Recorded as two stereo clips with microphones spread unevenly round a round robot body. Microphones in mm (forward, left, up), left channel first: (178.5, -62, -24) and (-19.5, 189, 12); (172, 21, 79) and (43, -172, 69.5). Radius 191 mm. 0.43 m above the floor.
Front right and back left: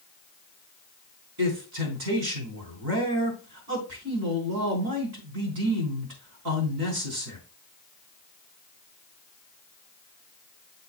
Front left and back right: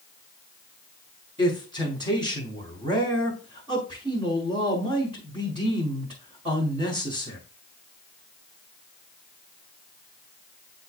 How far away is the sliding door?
No sliding door in this recording.